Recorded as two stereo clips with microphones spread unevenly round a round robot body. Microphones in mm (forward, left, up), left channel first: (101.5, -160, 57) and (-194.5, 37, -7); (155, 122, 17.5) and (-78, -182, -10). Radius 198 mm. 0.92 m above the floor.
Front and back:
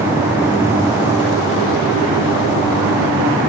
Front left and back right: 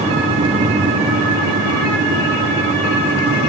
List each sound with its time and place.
Only background noise.